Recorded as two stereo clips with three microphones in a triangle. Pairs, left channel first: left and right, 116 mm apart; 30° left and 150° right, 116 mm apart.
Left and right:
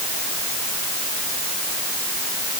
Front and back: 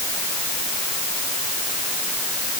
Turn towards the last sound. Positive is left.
No sound to turn to.